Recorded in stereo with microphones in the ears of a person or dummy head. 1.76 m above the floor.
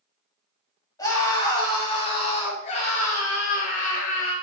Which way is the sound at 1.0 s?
20° left (ahead or behind).